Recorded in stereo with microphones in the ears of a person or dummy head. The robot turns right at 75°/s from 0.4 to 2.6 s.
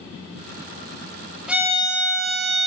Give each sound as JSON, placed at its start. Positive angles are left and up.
{"t": 1.5, "sound": "a violin", "azimuth_deg": 180, "distance_m": 0.7}